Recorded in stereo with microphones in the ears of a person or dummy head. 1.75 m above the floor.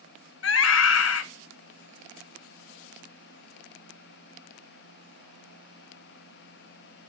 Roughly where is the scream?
Left.